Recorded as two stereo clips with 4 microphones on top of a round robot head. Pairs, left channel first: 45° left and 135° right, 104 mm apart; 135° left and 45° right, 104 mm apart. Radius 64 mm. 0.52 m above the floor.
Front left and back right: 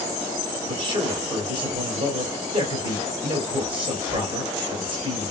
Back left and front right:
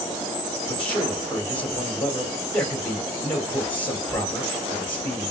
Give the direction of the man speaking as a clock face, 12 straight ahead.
5 o'clock.